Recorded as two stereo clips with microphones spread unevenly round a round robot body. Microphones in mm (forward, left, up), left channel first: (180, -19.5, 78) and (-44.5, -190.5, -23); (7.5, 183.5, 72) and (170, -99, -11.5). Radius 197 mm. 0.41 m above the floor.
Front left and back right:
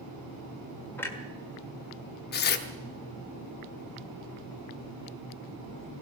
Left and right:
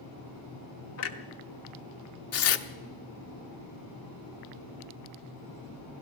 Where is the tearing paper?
100° left, 1.0 m.